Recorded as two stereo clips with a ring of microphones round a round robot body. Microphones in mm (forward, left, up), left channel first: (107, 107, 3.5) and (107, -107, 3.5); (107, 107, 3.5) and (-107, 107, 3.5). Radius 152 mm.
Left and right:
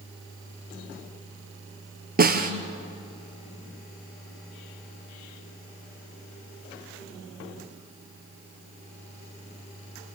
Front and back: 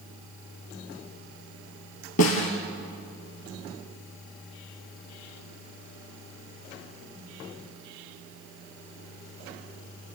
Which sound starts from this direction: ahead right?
A snare drum, at 2.2 s.